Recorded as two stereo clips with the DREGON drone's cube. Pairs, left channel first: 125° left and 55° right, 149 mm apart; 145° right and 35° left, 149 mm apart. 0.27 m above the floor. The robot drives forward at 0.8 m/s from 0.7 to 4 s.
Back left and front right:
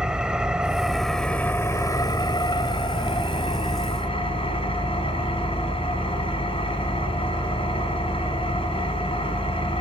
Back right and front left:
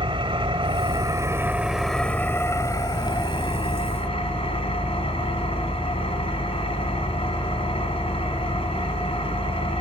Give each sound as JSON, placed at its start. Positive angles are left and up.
{"t": 0.0, "sound": "an engine running", "azimuth_deg": 25, "distance_m": 1.3}